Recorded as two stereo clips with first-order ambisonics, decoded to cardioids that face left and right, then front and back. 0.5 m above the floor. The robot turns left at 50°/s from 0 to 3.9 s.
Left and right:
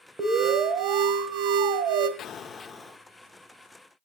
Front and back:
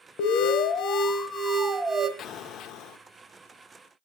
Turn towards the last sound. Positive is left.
turn(degrees=-40)